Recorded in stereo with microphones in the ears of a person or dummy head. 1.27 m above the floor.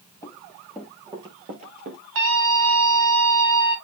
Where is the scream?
75° right (ahead or behind), 3 m.